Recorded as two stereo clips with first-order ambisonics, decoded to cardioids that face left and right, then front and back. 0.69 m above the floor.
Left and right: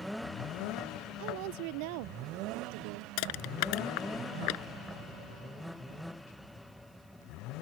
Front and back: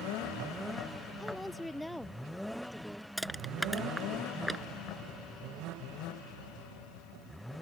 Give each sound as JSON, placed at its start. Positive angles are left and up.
{"t": 1.2, "sound": "a woman speaking", "azimuth_deg": -85}
{"t": 3.2, "sound": "crushing", "azimuth_deg": 95}